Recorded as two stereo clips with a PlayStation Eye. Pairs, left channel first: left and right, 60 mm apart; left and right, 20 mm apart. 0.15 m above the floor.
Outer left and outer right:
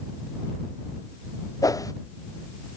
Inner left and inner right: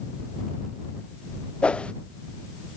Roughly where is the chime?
I don't hear a chime.